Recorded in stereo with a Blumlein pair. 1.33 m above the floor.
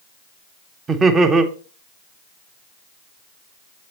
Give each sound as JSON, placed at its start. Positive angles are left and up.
{"t": 0.9, "sound": "laughter", "azimuth_deg": -20, "distance_m": 1.2}